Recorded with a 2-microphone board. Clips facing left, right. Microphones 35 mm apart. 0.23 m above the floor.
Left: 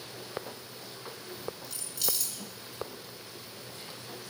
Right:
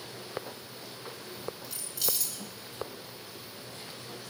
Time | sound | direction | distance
1.6 | keys jangling | centre (ahead or behind) | 1.8 m